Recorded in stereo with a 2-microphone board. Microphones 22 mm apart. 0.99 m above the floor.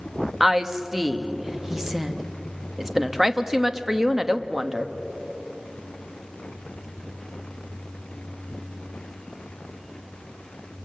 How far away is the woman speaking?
About 1.3 m.